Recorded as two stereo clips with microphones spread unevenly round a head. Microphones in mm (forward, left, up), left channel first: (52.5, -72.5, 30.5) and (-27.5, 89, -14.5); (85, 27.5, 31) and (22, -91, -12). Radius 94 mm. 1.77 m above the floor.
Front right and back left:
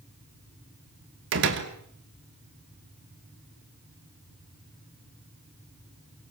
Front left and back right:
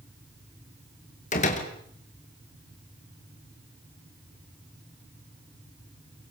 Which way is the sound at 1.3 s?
95° left.